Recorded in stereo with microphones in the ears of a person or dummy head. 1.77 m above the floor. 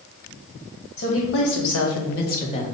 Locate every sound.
1.0 s a woman speaking: 60° left (ahead or behind), 1.3 m; by 2.6 s 30° left (ahead or behind), 0.9 m